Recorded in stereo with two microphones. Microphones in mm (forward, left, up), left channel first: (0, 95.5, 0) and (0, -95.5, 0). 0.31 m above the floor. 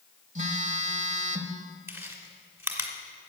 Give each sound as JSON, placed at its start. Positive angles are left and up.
{"t": 0.3, "sound": "a phone buzzing", "side_deg": -40, "distance_m": 1.1}
{"t": 1.9, "sound": "chewing", "side_deg": -15, "distance_m": 1.9}